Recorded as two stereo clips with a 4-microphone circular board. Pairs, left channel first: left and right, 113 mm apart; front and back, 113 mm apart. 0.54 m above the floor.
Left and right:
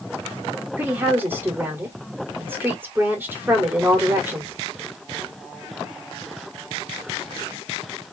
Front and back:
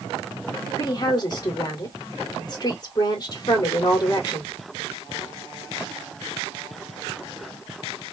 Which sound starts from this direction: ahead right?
A woman speaking, at 0.8 s.